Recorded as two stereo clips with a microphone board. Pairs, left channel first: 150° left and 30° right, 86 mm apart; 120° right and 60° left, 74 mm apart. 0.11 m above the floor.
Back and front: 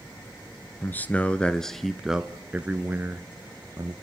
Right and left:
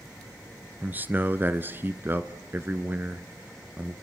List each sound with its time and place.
0.8 s a man speaking: 105° left, 1.4 m; by 3.9 s 5° left, 1.7 m